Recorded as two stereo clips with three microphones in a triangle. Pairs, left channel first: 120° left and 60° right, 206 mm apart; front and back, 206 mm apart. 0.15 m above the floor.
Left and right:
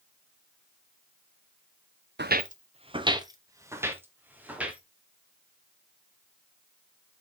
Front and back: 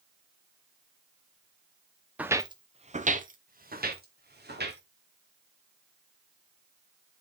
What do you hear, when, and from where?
2.2 s footsteps: 95° right, 0.8 m; by 4.8 s 145° right, 3 m